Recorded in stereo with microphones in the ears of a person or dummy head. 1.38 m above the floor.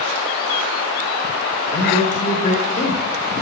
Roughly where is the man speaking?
Left.